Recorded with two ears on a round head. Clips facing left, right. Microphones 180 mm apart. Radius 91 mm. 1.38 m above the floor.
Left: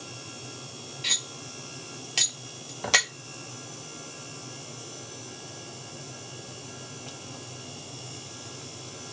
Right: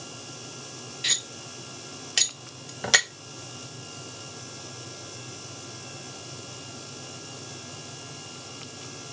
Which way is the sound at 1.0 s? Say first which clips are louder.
Even; 10° right (ahead or behind).